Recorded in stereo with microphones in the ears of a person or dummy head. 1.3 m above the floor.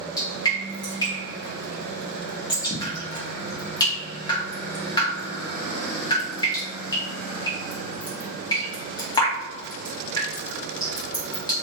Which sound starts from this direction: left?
Dripping, at 0.2 s.